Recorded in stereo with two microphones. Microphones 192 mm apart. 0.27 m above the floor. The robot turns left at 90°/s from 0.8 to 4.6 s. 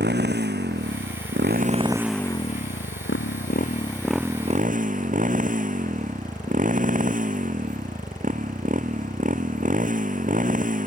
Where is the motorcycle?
60° right; by 10.9 s 45° right.